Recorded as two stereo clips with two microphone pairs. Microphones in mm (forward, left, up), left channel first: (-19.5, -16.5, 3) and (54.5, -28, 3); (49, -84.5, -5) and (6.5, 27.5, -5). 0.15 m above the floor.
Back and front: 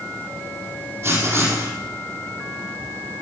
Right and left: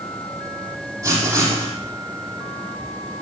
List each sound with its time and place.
1.0 s writing: 50° left, 4.5 m